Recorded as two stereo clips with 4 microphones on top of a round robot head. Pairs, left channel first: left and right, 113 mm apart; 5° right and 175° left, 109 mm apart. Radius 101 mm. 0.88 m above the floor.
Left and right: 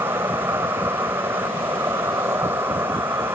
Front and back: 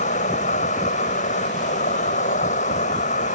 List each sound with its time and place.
0.0 s an insect: 15° right